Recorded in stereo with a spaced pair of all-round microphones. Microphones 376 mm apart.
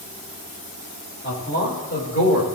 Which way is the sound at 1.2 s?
30° left (ahead or behind).